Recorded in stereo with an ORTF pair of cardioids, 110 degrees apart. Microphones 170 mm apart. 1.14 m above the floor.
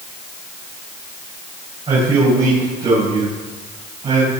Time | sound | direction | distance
1.9 | a man speaking | 30° right | 5.5 m